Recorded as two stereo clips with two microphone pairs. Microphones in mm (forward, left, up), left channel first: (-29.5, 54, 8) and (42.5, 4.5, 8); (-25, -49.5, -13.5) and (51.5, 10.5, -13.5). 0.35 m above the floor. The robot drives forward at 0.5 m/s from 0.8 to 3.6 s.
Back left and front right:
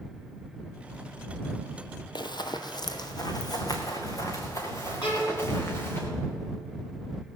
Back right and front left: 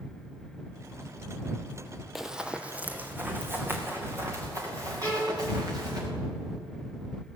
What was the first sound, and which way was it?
Running footsteps, 125° left.